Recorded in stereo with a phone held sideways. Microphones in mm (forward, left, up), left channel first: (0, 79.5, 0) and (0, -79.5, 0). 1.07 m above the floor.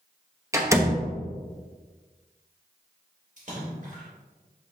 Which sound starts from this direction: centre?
A door slam, at 0.5 s.